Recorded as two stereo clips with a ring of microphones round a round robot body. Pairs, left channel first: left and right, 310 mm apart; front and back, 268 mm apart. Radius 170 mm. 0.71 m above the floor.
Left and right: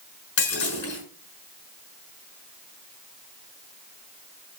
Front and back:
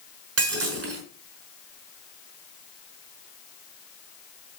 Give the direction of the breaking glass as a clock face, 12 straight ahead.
7 o'clock.